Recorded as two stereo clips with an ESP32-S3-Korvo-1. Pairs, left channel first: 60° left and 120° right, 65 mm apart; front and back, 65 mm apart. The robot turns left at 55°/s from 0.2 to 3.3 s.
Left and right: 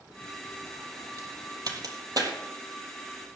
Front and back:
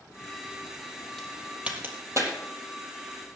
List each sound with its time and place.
1.2 s a crack: 85° right, 3.5 m; by 2.3 s 150° right, 3.5 m